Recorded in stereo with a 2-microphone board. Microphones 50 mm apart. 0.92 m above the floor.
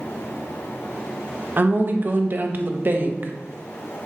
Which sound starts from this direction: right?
A woman speaking, at 1.6 s.